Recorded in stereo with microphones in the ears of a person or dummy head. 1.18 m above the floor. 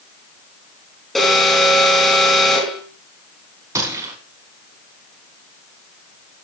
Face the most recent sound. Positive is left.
turn(degrees=-25)  # may be behind; listen again after turning